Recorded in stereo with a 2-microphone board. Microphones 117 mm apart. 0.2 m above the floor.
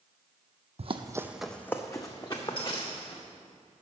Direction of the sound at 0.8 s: 60° right (ahead or behind).